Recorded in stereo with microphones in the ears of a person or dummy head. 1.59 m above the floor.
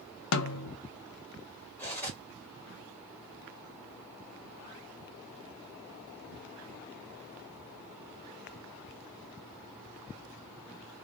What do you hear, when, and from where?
0.3 s a snare drum: 80° left, 0.6 m
1.8 s cutlery clinking: 15° left (ahead or behind), 1.7 m